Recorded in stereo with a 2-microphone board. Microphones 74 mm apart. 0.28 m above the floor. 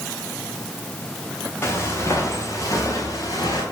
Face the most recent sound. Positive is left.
turn(degrees=50)  # may be behind; listen again after turning